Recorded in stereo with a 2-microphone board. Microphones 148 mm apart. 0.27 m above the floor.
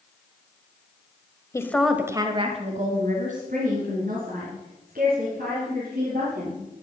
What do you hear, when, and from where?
1.5 s a woman speaking: 20° left (ahead or behind), 1.1 m; by 6.6 s 75° right (ahead or behind), 6 m